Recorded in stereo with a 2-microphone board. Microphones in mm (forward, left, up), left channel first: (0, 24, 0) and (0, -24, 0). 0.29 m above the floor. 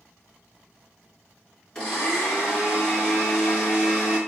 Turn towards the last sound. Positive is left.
turn(degrees=20)  # may be behind; listen again after turning